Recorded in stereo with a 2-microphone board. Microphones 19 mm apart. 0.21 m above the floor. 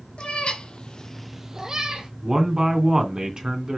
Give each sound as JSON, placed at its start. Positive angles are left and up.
{"t": 0.2, "sound": "a cat meowing", "side_deg": 80, "distance_m": 1.6}
{"t": 2.2, "sound": "a man speaking", "side_deg": -40, "distance_m": 2.5}